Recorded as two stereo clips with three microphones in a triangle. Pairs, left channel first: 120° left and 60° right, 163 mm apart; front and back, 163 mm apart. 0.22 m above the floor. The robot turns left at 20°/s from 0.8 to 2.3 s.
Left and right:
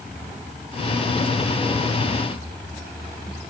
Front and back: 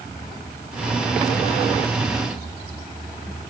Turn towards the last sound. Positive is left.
No sound to turn to.